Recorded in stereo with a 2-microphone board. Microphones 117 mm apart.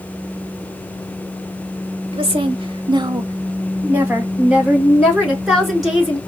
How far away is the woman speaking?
About 1.2 m.